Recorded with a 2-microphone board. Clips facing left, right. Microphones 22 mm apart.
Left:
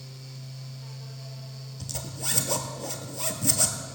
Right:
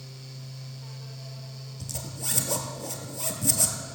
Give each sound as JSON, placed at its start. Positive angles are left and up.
{"t": 1.8, "sound": "a zipper", "side_deg": 15, "distance_m": 1.6}